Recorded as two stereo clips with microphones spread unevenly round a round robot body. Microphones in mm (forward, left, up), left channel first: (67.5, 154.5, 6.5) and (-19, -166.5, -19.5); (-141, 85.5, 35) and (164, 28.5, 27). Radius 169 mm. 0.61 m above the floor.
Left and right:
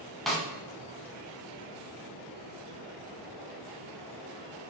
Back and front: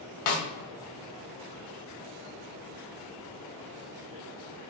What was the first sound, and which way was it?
A snare drum, 165° left.